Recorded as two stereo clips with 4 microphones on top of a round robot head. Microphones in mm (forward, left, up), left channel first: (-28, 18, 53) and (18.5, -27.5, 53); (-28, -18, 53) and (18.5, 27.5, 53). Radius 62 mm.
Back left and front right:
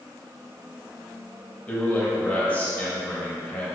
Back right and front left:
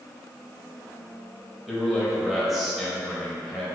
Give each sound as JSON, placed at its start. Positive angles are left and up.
{"t": 1.7, "sound": "a man speaking", "azimuth_deg": 130, "distance_m": 1.2}